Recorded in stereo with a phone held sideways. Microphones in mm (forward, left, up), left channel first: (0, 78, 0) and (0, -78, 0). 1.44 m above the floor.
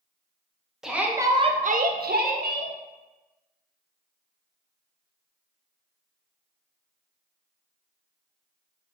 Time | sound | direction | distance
0.8 | a shout | 5° right (ahead or behind) | 0.8 m